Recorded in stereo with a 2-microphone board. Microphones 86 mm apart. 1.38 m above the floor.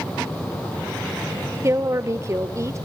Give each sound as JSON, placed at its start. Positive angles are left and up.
{"t": 1.6, "sound": "a woman speaking", "side_deg": -35, "distance_m": 1.1}